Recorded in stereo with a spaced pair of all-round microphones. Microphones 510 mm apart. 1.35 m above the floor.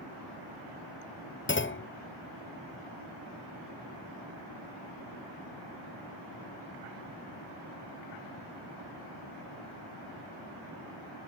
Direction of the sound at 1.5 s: 25° left (ahead or behind).